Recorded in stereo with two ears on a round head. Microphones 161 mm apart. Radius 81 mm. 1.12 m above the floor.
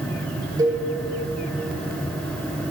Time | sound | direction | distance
0.6 | a cowbell | 20° right (ahead or behind) | 1.1 m